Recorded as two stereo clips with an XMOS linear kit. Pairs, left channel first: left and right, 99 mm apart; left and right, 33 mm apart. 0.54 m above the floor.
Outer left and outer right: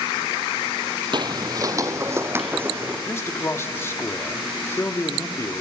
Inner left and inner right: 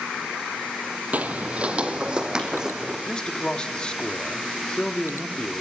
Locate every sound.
1.1 s footsteps: 55° right (ahead or behind), 1.0 m; by 3.0 s 20° right (ahead or behind), 2.5 m
3.1 s a man speaking: 25° left (ahead or behind), 1.2 m